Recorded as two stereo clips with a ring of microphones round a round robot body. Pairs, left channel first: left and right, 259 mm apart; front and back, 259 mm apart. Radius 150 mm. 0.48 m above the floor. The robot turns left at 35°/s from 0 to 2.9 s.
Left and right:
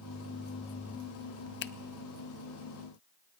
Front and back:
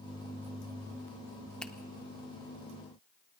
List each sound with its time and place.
1.6 s a finger snap: 85° left, 0.5 m; by 1.7 s 80° left, 0.5 m